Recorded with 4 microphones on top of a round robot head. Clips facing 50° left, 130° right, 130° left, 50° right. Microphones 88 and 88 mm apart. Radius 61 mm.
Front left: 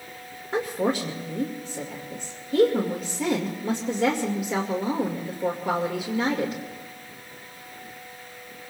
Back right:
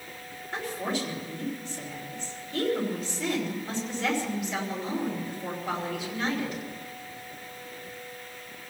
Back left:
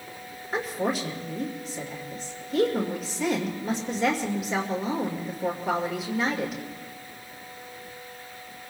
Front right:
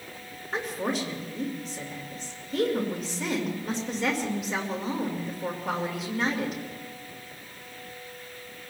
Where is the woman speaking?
45° left, 2 m.